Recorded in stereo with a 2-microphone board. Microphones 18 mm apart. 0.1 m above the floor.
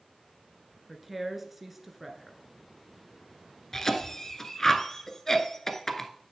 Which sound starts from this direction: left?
A cough, at 3.7 s.